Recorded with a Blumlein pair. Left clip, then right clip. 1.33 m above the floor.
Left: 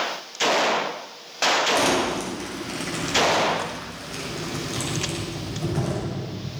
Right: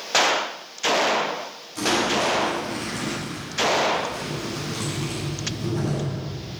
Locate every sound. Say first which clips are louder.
1.8 s crumpling: even; 60° left, 7.5 m